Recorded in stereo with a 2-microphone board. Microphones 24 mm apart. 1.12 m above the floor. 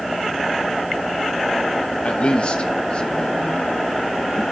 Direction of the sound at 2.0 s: 55° left (ahead or behind).